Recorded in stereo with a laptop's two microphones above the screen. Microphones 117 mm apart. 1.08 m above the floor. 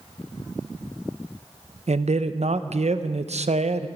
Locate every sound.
1.9 s a man speaking: 65° right (ahead or behind), 0.6 m